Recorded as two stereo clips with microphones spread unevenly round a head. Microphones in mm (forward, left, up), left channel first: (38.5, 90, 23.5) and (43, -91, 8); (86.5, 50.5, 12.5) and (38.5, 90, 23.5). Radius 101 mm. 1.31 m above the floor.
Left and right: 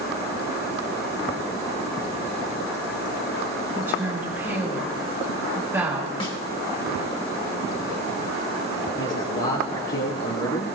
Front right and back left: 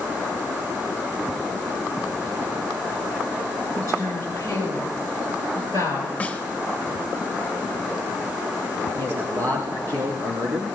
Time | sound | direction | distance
3.8 | a woman speaking | 170° right | 6.5 m
6.2 | a snare drum | 30° left | 1.5 m
9.0 | a man speaking | 125° left | 2.5 m